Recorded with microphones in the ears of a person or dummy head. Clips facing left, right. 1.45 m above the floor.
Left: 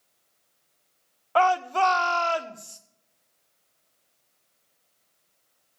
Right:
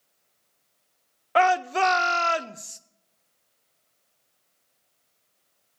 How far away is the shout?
About 0.5 m.